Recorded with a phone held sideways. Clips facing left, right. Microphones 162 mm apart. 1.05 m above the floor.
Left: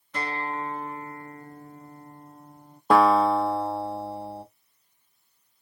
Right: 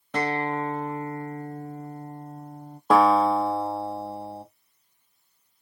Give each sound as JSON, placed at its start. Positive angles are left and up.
{"t": 0.1, "sound": "a guitar", "side_deg": -80, "distance_m": 1.2}
{"t": 2.9, "sound": "a guitar", "side_deg": -5, "distance_m": 1.0}